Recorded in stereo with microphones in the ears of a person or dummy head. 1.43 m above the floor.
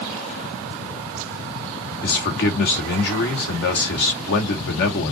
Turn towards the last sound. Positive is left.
turn(degrees=60)  # may be behind; listen again after turning